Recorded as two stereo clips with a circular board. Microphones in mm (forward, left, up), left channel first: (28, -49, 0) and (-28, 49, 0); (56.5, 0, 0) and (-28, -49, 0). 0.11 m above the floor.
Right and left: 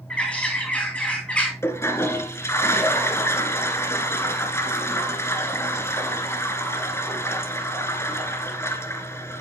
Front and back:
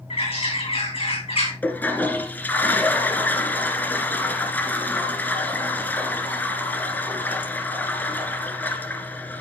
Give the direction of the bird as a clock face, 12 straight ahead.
11 o'clock.